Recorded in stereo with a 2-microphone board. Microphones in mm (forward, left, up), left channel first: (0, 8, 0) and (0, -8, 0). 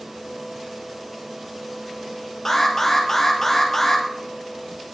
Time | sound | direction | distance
2.5 | an alarm | 30° left (ahead or behind) | 3 m